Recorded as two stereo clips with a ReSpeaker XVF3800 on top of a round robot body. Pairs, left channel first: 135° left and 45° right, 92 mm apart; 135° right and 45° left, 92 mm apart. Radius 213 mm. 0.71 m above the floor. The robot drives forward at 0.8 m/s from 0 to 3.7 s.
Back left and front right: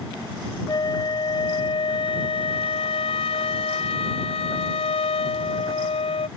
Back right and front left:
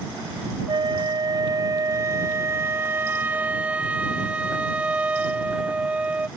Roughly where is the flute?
Left.